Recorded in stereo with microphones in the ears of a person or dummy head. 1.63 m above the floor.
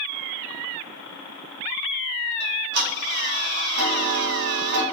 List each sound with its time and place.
2.4 s ticking: 50° right (ahead or behind), 0.5 m